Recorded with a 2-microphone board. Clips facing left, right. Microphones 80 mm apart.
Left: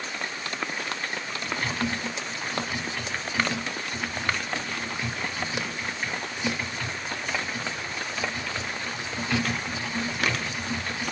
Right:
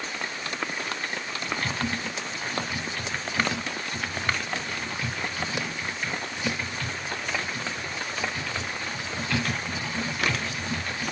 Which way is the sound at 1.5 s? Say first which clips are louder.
Left 1 dB; 10° left (ahead or behind).